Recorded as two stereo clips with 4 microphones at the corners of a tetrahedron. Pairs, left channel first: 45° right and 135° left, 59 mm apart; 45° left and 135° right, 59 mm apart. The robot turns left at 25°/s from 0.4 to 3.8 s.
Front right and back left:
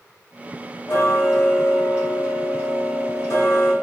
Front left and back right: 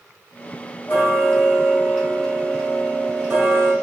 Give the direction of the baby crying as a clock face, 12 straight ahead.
No baby crying in this recording.